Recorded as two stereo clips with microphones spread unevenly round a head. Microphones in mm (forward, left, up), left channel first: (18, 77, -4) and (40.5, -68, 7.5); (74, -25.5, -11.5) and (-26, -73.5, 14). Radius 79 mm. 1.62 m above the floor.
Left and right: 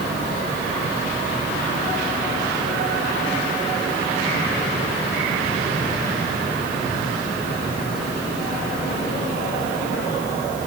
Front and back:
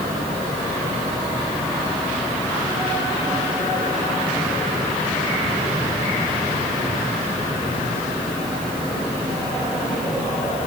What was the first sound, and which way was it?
Only background noise.